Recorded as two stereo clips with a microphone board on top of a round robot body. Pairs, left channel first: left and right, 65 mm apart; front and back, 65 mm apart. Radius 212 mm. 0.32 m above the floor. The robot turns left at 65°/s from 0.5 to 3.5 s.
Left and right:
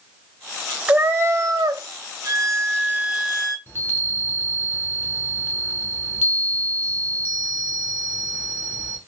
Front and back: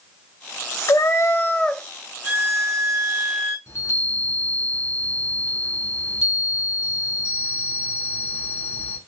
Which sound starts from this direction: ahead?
A cat meowing, at 0.9 s.